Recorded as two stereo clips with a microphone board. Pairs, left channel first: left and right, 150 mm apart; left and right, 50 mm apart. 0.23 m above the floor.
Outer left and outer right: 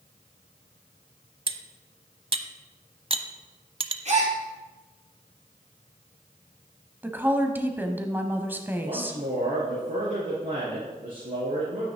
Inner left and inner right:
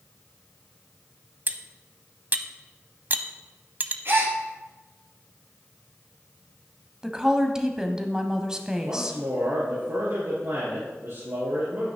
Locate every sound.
1.5 s cutlery clinking: 40° right (ahead or behind), 0.6 m
4.0 s a gasp: 50° right (ahead or behind), 2.5 m
7.0 s a woman speaking: 15° right (ahead or behind), 1.1 m
8.8 s a man speaking: 70° right (ahead or behind), 3.5 m